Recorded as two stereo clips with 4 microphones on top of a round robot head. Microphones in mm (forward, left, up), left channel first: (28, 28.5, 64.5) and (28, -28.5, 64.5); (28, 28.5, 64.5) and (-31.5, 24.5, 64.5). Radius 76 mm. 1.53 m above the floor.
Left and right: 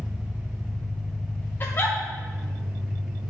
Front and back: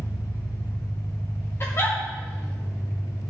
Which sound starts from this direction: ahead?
An engine running, at 0.0 s.